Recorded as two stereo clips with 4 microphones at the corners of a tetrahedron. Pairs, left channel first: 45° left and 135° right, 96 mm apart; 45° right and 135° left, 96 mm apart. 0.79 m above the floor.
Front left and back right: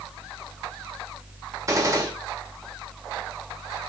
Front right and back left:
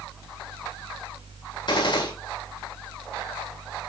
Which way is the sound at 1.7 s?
80° right.